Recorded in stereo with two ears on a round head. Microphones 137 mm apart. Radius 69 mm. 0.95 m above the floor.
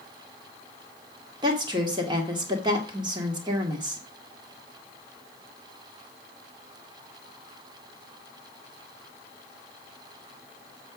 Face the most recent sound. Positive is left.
turn(degrees=-30)  # may be behind; listen again after turning